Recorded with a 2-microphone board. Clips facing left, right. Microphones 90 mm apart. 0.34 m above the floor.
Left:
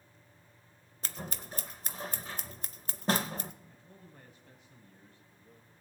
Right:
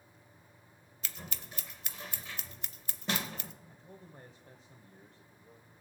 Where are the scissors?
40° left (ahead or behind), 0.5 m.